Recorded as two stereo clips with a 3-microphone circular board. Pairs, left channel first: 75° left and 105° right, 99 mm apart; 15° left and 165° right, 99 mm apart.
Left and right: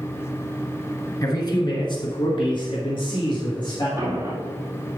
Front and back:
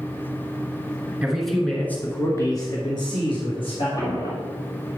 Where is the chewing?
No chewing in this recording.